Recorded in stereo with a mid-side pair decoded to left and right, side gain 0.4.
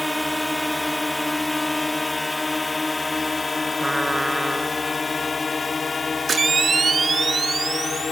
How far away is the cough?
I don't hear a cough.